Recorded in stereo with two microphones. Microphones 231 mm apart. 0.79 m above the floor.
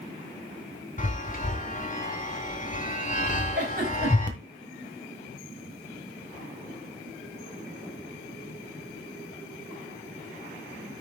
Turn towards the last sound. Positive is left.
turn(degrees=-40)  # may be behind; listen again after turning